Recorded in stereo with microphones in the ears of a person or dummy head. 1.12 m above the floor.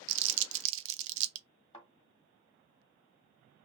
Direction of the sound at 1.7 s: 30° left (ahead or behind).